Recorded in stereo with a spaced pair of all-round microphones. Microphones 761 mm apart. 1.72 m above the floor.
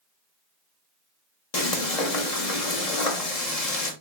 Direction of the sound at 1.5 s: 50° left (ahead or behind).